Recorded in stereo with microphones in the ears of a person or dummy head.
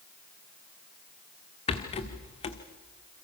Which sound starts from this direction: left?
A rattle, at 1.7 s.